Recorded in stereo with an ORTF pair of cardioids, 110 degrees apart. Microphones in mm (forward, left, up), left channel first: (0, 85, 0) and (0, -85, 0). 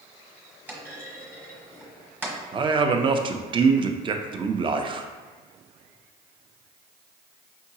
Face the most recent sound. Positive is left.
turn(degrees=-30)